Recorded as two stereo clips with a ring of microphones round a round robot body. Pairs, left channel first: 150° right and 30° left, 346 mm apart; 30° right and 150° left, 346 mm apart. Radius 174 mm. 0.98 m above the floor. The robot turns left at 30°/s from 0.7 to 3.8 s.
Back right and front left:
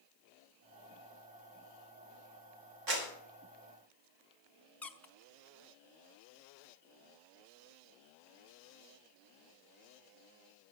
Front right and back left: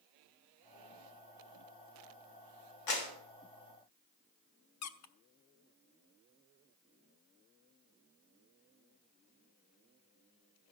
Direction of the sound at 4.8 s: 65° right.